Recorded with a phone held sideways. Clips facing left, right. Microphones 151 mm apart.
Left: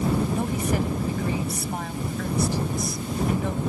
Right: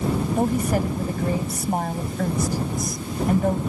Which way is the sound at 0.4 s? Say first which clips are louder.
Right 4 dB; 45° right (ahead or behind).